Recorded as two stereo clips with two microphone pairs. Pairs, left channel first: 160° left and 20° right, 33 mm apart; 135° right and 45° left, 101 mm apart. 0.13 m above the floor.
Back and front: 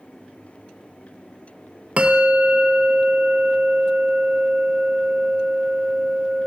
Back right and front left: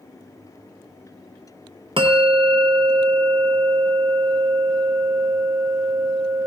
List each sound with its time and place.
2.0 s a bell: 30° left, 1.2 m